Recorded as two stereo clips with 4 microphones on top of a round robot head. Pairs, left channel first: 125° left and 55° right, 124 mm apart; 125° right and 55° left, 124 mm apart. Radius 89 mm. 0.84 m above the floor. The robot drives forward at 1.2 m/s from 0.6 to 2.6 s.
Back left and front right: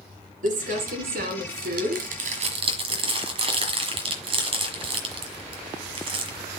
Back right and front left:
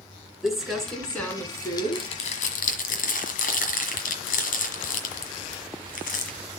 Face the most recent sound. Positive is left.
turn(degrees=-105)